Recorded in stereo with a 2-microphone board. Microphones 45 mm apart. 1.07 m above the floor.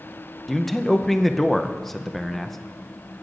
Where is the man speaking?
5° left (ahead or behind), 0.6 m.